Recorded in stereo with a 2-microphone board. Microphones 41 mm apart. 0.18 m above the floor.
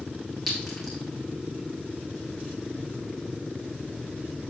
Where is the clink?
Centre (ahead or behind), 5.5 m.